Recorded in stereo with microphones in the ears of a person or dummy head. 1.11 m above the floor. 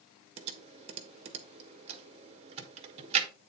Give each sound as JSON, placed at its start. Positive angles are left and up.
{"t": 0.4, "sound": "typing on a keyboard", "side_deg": -40, "distance_m": 1.2}